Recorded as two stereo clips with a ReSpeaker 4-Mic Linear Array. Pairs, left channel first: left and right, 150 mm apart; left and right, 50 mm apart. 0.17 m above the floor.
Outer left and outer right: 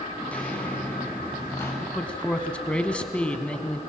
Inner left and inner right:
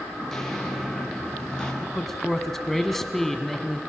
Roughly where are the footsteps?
Centre.